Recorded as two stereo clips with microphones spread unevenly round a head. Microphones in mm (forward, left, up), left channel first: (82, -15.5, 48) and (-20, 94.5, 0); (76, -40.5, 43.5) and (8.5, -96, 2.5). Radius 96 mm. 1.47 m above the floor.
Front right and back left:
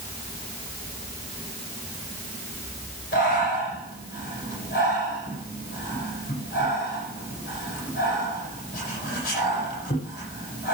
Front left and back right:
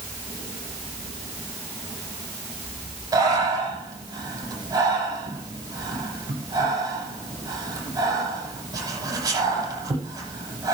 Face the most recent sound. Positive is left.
turn(degrees=-90)